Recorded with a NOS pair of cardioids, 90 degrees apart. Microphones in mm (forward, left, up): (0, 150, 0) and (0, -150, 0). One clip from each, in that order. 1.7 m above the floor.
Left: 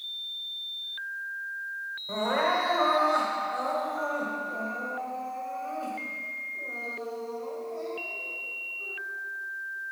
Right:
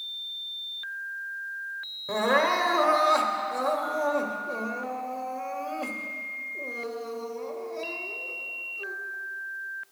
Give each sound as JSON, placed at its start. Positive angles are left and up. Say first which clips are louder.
{"t": 2.1, "sound": "crying", "louder": "right 3 dB", "azimuth_deg": -60, "distance_m": 1.2}